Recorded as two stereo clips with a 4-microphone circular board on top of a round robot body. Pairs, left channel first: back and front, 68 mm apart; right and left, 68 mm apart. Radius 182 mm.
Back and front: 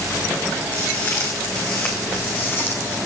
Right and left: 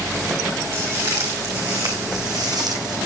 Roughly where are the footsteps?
Behind left.